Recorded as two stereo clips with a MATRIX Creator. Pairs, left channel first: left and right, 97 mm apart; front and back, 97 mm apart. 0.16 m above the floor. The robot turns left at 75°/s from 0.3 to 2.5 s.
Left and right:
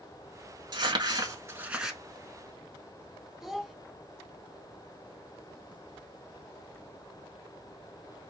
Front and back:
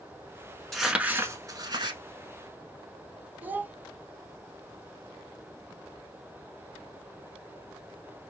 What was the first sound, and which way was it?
Crumpling, 85° right.